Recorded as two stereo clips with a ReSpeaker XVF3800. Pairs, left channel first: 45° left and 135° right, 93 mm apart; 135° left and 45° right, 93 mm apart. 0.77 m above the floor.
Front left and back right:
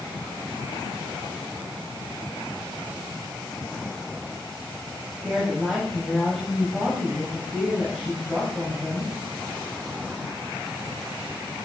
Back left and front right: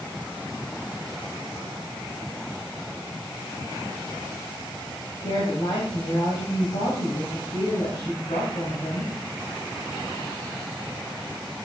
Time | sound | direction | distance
5.2 | a woman speaking | 135° left | 3.5 m